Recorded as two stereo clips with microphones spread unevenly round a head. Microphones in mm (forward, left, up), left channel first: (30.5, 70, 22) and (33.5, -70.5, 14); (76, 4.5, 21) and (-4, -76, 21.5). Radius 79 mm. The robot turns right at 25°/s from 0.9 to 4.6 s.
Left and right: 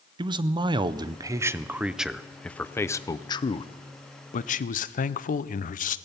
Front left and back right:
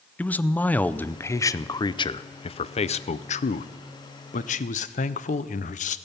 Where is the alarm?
I don't hear an alarm.